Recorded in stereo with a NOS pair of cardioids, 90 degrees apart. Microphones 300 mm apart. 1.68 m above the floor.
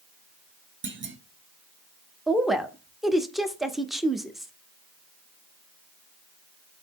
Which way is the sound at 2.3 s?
Straight ahead.